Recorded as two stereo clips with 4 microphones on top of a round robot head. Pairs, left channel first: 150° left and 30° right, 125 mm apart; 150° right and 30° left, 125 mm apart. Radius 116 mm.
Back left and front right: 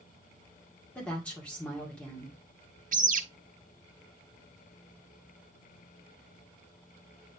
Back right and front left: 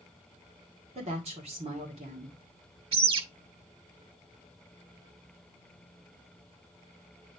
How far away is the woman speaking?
About 2 m.